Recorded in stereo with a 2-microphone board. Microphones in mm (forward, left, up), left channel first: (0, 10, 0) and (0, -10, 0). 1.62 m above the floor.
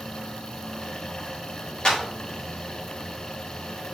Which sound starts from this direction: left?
A clap, at 1.9 s.